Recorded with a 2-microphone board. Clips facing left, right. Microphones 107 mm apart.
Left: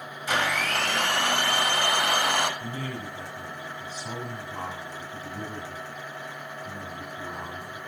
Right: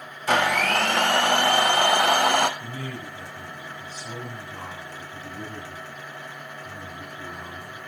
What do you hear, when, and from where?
0.3 s a blender: 60° right (ahead or behind), 0.6 m
2.6 s a man speaking: 40° left (ahead or behind), 3.5 m